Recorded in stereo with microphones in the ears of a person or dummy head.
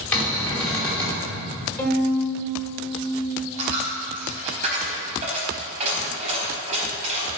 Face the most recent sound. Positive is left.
turn(degrees=-35)  # may be behind; listen again after turning